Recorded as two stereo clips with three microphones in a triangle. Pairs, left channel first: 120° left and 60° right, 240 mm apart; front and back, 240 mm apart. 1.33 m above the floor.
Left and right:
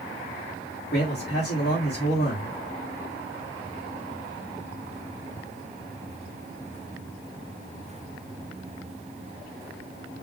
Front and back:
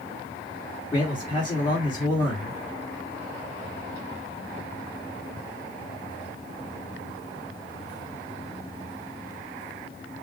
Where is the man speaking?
70° left, 2.5 m.